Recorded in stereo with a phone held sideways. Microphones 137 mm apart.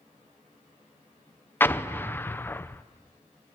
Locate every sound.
1.6 s an explosion: 15° left (ahead or behind), 0.8 m